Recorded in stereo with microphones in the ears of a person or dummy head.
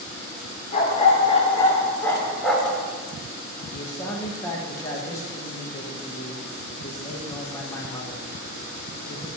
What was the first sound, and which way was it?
A dog barking, 40° left (ahead or behind).